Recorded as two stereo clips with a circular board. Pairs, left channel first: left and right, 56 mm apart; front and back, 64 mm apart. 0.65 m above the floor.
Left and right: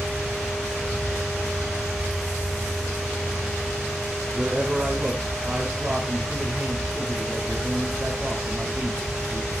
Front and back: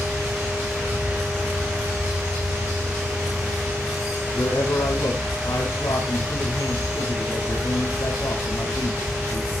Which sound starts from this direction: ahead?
A man speaking, at 4.3 s.